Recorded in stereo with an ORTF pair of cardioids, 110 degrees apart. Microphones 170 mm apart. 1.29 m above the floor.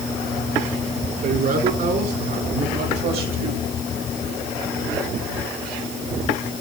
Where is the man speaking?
55° right, 5.5 m; by 3.6 s 60° right, 4 m.